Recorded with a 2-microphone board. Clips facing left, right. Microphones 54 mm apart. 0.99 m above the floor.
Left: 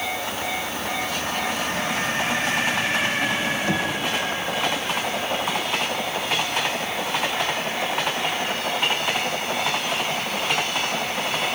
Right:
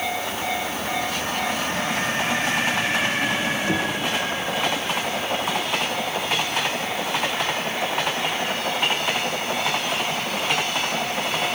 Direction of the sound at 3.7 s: 50° left (ahead or behind).